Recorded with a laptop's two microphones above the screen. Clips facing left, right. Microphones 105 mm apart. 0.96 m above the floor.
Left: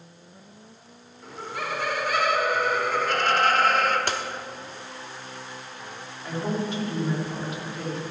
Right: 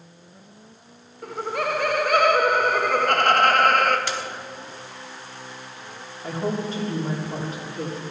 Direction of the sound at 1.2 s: 55° right (ahead or behind).